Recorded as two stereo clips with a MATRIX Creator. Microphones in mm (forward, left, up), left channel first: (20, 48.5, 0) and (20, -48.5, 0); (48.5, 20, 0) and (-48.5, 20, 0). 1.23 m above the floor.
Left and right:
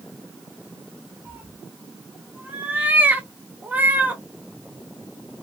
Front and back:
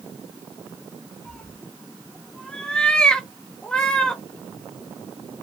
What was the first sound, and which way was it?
A cat meowing, 60° right.